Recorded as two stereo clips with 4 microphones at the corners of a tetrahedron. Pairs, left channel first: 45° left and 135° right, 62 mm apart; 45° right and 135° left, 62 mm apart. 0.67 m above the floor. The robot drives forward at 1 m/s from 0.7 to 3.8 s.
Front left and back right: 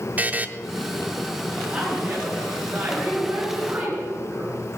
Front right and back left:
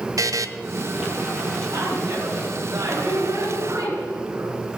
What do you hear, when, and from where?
0.2 s a buzzer: 165° left, 0.6 m
1.7 s a woman speaking: 160° left, 5.5 m; by 4.6 s 165° left, 7.5 m